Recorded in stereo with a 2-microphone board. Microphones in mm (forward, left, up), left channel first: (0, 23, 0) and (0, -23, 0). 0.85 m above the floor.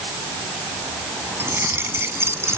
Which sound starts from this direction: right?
Keys jangling, at 1.4 s.